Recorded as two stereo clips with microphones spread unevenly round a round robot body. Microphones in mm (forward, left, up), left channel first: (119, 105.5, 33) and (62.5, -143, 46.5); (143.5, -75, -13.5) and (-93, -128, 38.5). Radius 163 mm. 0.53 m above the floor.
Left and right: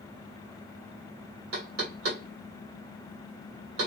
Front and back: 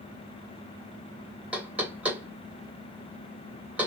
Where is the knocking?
75° right, 2.5 m.